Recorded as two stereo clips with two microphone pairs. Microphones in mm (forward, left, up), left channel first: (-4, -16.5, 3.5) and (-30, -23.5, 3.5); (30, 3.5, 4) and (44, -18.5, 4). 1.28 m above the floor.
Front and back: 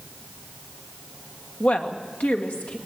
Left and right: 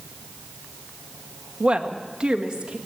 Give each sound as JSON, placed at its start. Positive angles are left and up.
{"t": 1.6, "sound": "a woman speaking", "azimuth_deg": -5, "distance_m": 1.3}